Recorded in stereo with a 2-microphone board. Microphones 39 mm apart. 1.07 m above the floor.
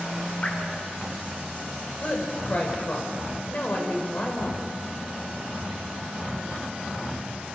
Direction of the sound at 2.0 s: 45° left (ahead or behind).